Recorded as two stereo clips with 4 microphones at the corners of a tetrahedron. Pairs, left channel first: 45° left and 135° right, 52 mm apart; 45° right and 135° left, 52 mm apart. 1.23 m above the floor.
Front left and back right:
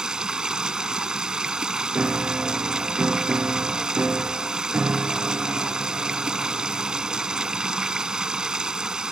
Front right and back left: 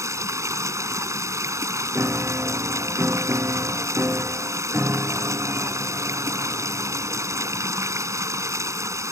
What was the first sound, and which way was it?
Running water, 150° left.